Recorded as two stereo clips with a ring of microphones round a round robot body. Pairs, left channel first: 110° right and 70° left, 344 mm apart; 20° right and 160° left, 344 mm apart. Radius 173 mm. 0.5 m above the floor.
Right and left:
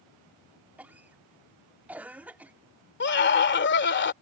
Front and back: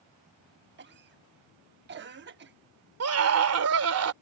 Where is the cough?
150° left.